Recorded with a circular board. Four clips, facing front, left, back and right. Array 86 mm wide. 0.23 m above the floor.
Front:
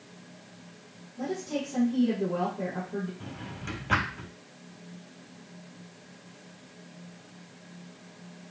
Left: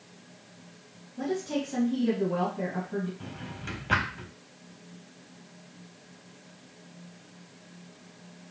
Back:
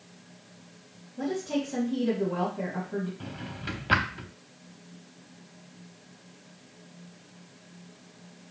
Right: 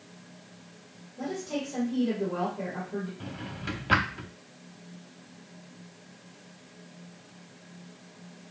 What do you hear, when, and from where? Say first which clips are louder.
1.2 s a woman speaking: left 3 dB, back 3 dB; 140° left, 3 m
3.2 s a drawer: right 2 dB, back 2 dB; 155° right, 0.7 m